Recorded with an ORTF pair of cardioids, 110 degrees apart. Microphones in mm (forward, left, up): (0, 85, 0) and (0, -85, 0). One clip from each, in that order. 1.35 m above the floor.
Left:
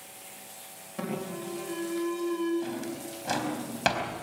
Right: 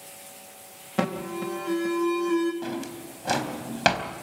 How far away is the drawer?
About 4 m.